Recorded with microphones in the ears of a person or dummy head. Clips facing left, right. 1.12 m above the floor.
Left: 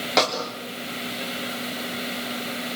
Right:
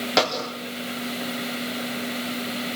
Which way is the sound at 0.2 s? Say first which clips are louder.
Even; centre (ahead or behind).